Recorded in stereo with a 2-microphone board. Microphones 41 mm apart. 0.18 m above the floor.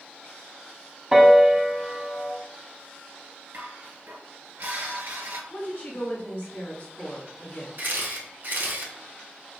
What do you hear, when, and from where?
1.1 s a piano: 15° right (ahead or behind), 0.6 m
3.5 s dishes clattering: 65° right (ahead or behind), 1.6 m
5.5 s a woman speaking: 50° left (ahead or behind), 1.6 m
7.8 s a camera shutter: 55° right (ahead or behind), 0.8 m